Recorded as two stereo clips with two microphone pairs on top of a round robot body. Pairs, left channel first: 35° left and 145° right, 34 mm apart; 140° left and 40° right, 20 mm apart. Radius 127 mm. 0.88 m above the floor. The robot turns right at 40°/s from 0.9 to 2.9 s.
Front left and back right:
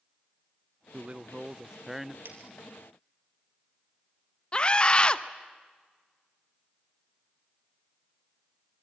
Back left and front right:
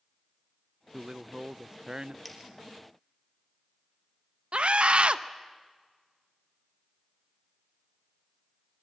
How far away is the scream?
About 1.0 m.